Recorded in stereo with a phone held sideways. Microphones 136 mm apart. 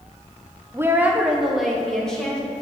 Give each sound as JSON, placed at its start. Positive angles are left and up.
{"t": 0.7, "sound": "a woman speaking", "side_deg": -20, "distance_m": 0.7}